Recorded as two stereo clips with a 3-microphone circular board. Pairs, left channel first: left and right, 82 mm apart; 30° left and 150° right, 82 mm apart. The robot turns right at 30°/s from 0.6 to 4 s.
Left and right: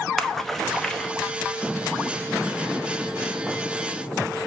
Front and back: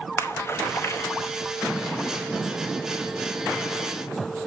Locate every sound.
0.2 s a splash: 5° left, 0.9 m; by 1.1 s 20° left, 0.9 m